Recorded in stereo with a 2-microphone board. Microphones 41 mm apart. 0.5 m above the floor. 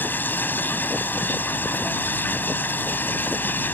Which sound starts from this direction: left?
Running water, at 0.0 s.